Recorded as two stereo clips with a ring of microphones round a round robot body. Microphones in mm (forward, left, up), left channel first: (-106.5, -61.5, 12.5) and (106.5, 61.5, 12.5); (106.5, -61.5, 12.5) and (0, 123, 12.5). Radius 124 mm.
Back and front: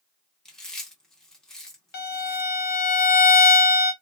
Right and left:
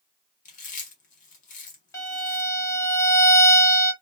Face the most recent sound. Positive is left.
turn(degrees=-130)